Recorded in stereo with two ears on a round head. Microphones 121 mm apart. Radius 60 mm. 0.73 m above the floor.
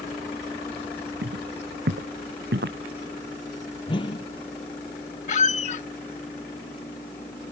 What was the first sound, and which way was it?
Footsteps, 85° right.